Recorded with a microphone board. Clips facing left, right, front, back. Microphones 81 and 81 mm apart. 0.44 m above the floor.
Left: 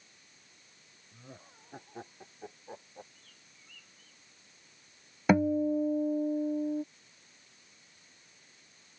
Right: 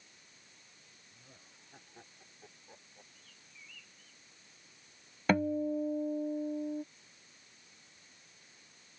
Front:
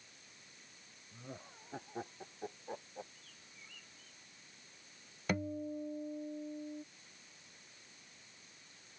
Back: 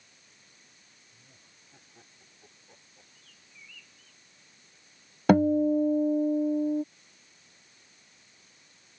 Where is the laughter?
35° left; by 3.0 s 40° left.